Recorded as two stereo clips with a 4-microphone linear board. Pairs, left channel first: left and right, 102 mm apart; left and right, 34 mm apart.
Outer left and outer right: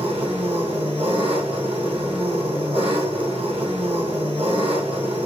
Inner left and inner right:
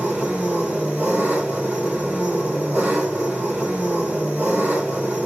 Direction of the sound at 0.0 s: 75° right (ahead or behind).